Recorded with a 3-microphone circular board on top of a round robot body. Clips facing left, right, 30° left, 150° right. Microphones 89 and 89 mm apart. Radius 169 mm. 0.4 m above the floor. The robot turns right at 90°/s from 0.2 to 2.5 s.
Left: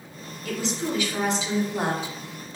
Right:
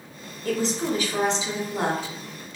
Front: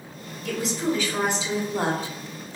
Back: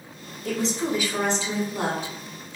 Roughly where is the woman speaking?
Behind right.